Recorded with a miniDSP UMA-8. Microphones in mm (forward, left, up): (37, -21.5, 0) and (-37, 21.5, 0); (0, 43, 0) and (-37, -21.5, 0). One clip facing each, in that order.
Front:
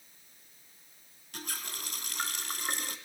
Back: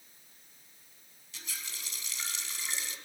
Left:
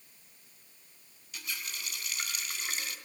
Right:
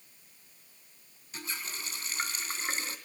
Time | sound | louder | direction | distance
1.3 | a running tap | front 5 dB, right 1 dB | 65° right | 2.5 m